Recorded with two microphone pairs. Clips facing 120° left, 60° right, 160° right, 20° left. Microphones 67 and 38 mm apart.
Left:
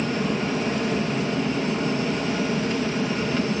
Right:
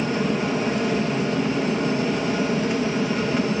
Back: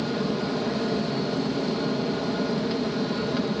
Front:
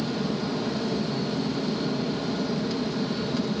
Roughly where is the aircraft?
Behind right.